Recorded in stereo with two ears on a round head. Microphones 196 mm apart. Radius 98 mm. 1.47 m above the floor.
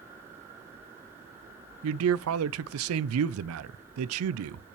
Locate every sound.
1.8 s a man speaking: 70° right (ahead or behind), 0.5 m